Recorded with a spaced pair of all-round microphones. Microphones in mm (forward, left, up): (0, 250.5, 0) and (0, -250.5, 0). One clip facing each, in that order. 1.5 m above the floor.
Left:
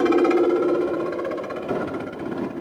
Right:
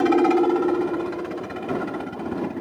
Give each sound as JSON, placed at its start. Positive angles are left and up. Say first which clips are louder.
{"t": 0.0, "sound": "a helicopter", "louder": "even", "side_deg": -15}